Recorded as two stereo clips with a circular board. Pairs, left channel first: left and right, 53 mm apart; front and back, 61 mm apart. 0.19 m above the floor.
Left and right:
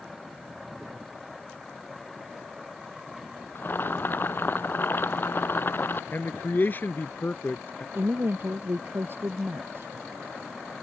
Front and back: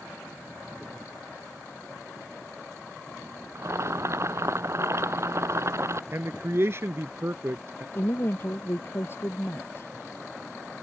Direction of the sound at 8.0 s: 45° right.